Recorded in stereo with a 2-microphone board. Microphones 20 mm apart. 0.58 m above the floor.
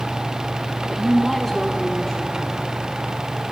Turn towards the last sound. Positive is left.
turn(degrees=35)  # may be behind; listen again after turning